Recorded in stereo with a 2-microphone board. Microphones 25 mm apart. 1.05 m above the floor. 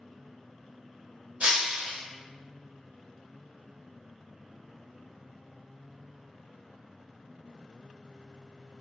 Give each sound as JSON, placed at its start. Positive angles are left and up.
{"t": 1.4, "sound": "breaking glass", "side_deg": -65, "distance_m": 1.4}